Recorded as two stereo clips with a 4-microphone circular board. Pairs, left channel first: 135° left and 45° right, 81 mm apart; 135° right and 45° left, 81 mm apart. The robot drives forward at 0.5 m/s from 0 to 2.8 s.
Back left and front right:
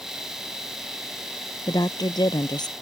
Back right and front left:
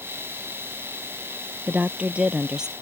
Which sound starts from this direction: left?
A woman speaking, at 1.7 s.